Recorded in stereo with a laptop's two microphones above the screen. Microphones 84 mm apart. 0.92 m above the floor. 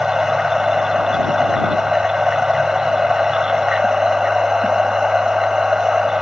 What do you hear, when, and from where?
0.0 s a machine running: 5° right (ahead or behind)